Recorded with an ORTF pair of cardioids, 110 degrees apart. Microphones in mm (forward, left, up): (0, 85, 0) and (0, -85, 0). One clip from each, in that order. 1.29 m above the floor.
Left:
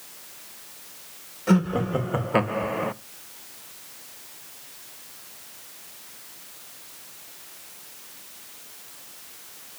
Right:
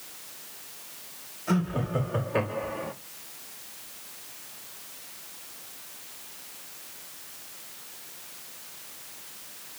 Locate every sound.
1.5 s laughter: 65° left, 1.9 m; by 2.9 s 60° left, 0.5 m